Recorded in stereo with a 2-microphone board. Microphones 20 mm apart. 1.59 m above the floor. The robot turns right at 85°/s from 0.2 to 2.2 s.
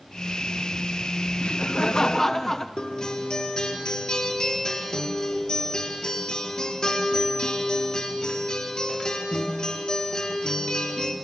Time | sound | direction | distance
1.4 | laughter | 90° left | 1.2 m
2.8 | a guitar | 40° left (ahead or behind) | 3.5 m